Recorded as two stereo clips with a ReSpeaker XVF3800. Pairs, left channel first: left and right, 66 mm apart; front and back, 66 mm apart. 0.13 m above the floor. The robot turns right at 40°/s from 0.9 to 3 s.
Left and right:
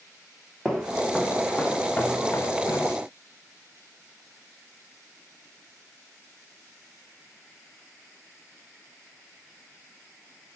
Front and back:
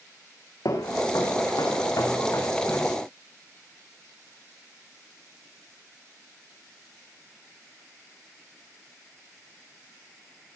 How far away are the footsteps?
About 7 m.